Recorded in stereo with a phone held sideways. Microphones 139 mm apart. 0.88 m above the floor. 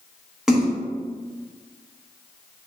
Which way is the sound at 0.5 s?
5° right (ahead or behind).